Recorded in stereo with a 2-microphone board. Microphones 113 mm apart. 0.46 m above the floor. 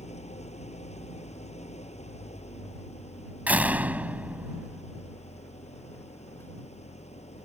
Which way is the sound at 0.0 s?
80° left.